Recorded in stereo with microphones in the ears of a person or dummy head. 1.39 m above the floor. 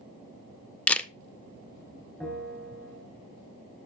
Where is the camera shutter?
Centre (ahead or behind), 0.5 m.